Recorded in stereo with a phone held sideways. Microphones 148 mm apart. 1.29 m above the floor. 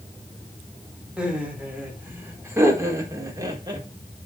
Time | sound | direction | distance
1.2 | laughter | 5° right (ahead or behind) | 4.5 m